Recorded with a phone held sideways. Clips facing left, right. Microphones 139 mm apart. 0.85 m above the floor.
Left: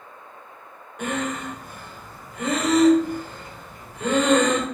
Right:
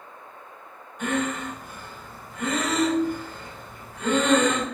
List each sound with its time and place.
1.0 s breathing: 75° left (ahead or behind), 2 m